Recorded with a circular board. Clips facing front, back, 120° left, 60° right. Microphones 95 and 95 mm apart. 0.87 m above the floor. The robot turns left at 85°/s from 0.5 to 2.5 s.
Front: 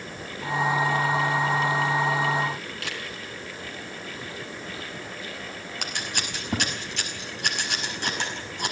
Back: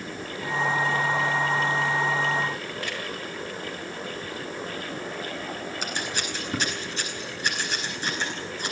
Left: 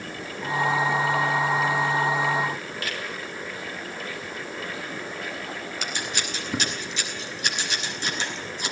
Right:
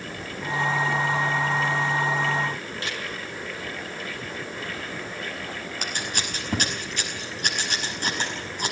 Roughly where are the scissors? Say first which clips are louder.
Front 1 dB, right 1 dB; ahead.